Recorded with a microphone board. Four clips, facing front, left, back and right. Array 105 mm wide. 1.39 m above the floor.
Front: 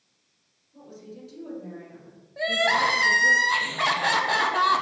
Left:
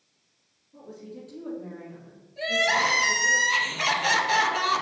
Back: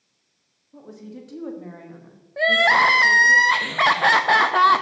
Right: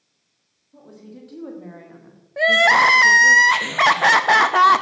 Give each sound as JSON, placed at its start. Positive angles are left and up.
{"t": 0.7, "sound": "a woman speaking", "azimuth_deg": -160, "distance_m": 3.0}
{"t": 2.4, "sound": "crying", "azimuth_deg": -120, "distance_m": 0.7}